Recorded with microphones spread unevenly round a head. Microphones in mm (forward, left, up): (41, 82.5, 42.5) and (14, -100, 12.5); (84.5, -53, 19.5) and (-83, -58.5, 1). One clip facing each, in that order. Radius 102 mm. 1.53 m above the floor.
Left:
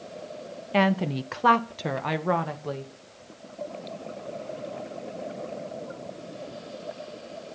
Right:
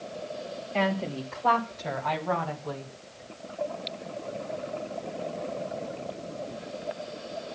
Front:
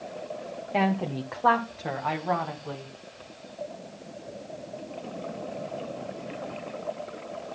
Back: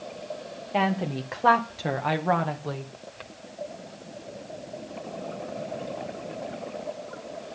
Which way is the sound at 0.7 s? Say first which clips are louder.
Left 5 dB, even; 85° left.